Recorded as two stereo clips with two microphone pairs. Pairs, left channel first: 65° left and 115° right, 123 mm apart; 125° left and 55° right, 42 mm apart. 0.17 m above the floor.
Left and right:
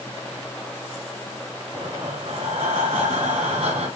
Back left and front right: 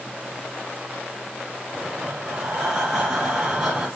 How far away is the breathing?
About 2.5 m.